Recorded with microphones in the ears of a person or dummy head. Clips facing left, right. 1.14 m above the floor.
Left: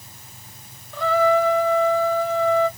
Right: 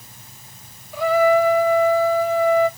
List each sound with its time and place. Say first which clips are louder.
0.9 s a trumpet: right 3 dB; 10° right (ahead or behind), 0.8 m